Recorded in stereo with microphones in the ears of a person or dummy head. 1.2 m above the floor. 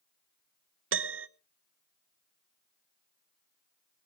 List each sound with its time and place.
0.9 s a piano: 65° right (ahead or behind), 1.0 m